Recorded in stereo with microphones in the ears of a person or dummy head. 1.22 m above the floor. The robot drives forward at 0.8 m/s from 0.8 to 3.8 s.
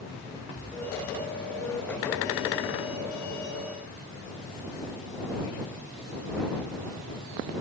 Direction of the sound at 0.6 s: 10° left (ahead or behind).